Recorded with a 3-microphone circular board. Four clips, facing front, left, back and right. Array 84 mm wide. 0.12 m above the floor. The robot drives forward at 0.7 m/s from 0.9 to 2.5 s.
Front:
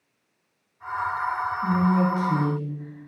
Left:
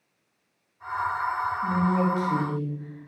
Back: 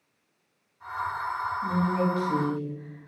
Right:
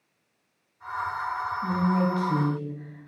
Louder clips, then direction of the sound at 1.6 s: Even, front 4 dB; 100° right.